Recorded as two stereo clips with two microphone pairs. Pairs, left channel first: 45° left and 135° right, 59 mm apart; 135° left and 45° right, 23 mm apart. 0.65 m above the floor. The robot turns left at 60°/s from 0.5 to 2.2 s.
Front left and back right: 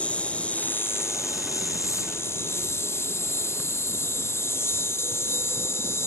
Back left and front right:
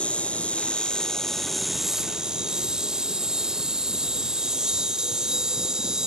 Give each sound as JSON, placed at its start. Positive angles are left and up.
{"t": 0.0, "sound": "an insect", "azimuth_deg": 110}